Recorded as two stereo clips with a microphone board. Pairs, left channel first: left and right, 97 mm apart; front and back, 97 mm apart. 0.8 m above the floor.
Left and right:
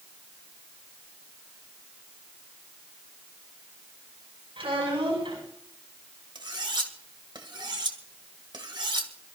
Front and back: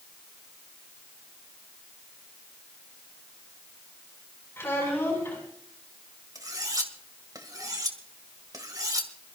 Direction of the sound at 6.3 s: 130° right.